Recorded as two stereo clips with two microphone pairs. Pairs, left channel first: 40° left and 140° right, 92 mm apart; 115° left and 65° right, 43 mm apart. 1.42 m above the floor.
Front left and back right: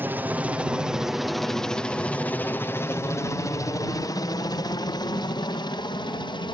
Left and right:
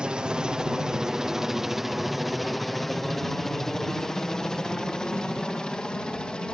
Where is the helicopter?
100° right; by 6.5 s 50° left.